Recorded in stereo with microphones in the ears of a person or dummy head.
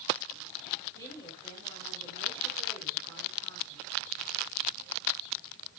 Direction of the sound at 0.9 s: 20° left (ahead or behind).